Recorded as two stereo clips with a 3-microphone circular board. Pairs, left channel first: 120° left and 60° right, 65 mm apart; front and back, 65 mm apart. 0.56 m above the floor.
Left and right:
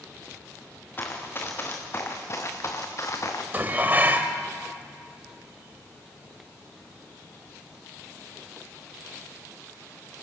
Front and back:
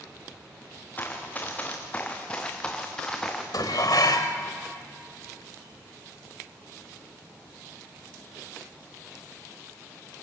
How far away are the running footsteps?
About 3.5 m.